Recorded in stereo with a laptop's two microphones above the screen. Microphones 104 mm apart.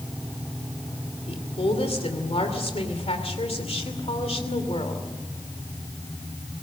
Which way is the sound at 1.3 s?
75° left (ahead or behind).